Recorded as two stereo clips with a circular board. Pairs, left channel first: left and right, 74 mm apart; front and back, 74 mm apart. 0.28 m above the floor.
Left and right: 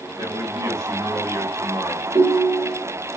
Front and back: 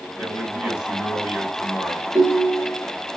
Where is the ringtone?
110° right, 2.5 m.